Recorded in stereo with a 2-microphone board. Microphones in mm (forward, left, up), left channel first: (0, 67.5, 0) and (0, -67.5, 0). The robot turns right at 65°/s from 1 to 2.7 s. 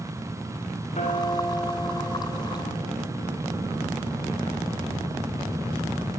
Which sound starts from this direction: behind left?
A guitar, at 0.9 s.